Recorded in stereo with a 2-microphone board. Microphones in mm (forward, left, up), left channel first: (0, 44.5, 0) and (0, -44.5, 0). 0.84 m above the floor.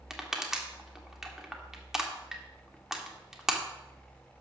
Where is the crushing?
5° right (ahead or behind), 1.4 m.